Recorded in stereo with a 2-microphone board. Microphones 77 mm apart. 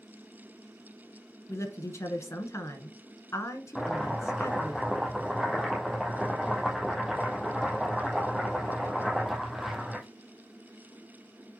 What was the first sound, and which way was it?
A woman speaking, 40° left (ahead or behind).